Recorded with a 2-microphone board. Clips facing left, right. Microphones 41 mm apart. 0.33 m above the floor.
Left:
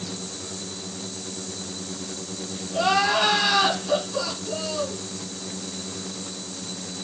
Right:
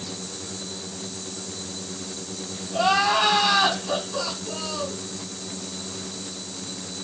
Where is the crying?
25° right (ahead or behind), 2.5 m.